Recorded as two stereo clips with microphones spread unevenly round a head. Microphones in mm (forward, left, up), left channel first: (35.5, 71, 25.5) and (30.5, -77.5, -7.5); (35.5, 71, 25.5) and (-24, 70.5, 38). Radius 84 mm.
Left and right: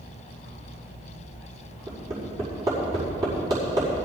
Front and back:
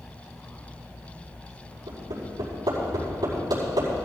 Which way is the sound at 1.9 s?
165° right.